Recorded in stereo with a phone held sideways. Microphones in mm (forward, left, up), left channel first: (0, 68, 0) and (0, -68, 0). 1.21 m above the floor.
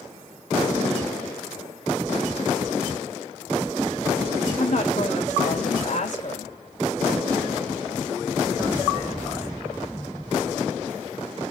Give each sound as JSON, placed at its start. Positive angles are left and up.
{"t": 4.6, "sound": "a woman speaking", "side_deg": 60, "distance_m": 2.0}